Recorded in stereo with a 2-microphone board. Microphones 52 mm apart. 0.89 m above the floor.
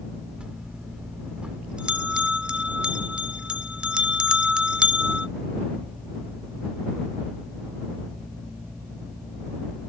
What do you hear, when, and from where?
0.4 s a bell: 20° right (ahead or behind)